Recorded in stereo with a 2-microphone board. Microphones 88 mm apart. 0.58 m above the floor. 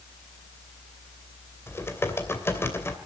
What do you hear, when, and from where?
1.7 s typing on a keyboard: 30° left (ahead or behind), 2.5 m